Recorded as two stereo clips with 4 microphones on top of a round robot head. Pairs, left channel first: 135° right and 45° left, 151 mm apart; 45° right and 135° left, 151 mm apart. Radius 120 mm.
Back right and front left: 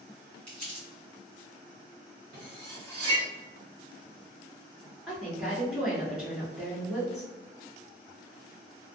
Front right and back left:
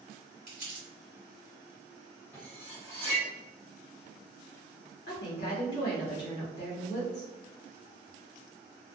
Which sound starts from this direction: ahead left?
Cutlery clinking, at 2.3 s.